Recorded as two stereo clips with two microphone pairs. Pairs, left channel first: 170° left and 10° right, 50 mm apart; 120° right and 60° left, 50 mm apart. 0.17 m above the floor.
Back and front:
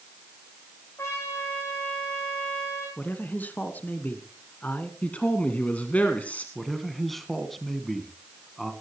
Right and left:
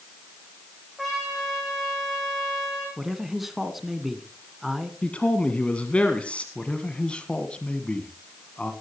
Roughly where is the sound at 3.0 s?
Behind left.